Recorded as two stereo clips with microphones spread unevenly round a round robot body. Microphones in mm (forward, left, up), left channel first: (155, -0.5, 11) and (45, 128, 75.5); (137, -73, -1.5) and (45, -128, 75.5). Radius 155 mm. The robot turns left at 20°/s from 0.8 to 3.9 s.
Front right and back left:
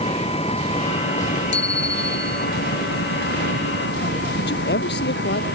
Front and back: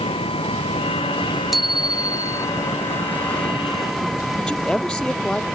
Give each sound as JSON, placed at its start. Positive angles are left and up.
{"t": 0.0, "sound": "an engine running", "azimuth_deg": 5}
{"t": 1.5, "sound": "a bicycle bell", "azimuth_deg": -60}
{"t": 4.4, "sound": "a man speaking", "azimuth_deg": -50}